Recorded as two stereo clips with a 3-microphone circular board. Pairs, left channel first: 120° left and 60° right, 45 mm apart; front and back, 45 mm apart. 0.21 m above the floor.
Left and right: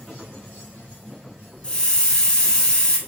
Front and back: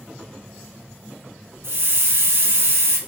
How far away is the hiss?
About 0.8 m.